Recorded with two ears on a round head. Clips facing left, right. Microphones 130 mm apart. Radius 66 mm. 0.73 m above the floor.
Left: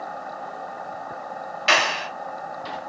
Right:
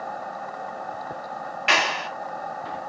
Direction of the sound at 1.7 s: 40° left (ahead or behind).